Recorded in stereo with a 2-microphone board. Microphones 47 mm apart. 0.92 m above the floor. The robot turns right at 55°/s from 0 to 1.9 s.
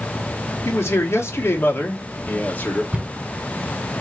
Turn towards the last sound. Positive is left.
turn(degrees=-20)  # may be behind; listen again after turning